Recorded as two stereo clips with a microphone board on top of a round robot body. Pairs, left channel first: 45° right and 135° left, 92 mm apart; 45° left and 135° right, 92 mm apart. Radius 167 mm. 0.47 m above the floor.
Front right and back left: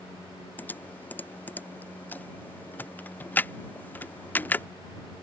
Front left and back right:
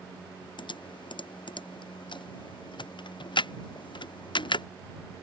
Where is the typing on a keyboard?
25° left.